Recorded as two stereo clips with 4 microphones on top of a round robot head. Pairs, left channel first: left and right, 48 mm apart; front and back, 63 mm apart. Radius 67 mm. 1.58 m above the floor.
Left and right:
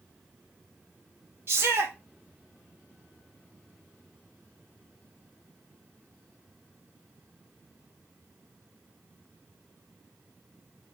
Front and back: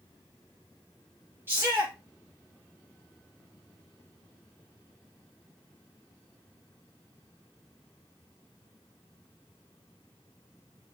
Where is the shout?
120° right, 3 m.